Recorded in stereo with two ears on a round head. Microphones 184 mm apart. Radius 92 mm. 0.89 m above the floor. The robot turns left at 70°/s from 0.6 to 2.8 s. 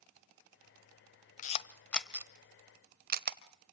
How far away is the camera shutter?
About 1.1 m.